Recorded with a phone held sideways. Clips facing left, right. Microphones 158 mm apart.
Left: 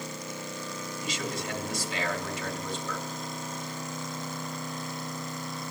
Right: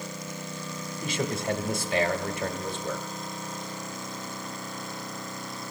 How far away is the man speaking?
About 1.5 m.